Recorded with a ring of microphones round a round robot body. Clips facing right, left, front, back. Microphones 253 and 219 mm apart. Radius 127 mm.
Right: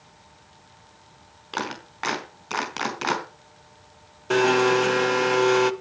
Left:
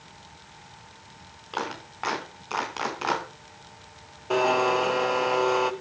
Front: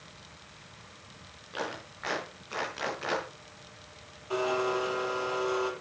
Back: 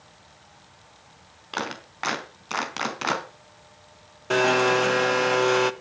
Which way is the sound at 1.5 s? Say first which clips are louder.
Right 1 dB, back 3 dB; 145° right.